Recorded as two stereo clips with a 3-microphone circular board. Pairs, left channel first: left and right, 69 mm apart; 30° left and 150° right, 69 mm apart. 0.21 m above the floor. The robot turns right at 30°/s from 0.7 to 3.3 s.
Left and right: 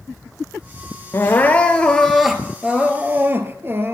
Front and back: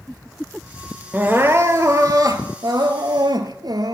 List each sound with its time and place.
1.1 s crying: 145° left, 1.6 m; by 3.9 s 150° right, 1.6 m